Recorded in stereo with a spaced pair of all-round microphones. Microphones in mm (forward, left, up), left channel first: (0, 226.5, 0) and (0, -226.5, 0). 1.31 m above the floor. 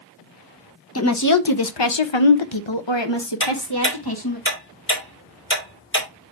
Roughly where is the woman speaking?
Left.